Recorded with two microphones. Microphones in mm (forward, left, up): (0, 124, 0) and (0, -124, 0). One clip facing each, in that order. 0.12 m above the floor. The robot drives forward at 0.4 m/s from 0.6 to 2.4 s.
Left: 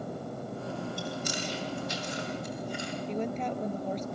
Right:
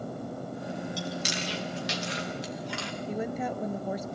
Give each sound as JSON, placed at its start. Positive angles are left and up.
{"t": 1.0, "sound": "chewing", "side_deg": -85, "distance_m": 4.0}
{"t": 3.1, "sound": "a woman speaking", "side_deg": -10, "distance_m": 1.9}